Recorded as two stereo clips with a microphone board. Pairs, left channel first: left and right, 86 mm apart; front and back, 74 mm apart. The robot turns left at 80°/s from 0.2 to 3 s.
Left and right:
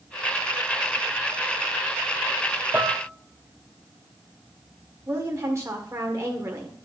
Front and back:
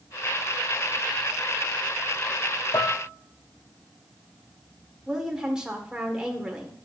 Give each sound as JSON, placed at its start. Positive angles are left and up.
{"t": 2.7, "sound": "dishes clattering", "azimuth_deg": -15, "distance_m": 0.9}
{"t": 5.1, "sound": "a woman speaking", "azimuth_deg": -105, "distance_m": 1.4}